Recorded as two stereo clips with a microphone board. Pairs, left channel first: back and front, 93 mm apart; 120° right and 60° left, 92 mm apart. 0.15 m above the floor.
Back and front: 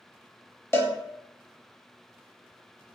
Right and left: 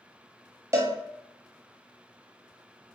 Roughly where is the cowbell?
Behind left.